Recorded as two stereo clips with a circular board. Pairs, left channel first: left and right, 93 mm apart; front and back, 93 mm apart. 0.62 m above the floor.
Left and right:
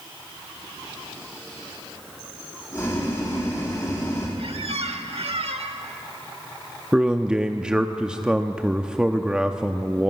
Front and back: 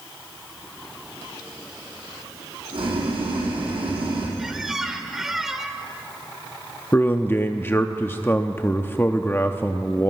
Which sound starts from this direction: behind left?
Boiling, at 2.7 s.